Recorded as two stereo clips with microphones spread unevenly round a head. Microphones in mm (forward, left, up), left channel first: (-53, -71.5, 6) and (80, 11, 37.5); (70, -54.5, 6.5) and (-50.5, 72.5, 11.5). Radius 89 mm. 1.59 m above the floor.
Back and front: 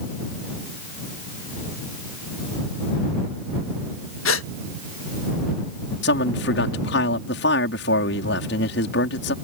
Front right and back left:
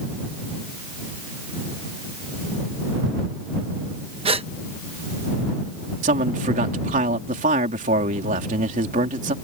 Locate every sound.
4.2 s a gasp: 170° right
6.0 s a man speaking: 175° right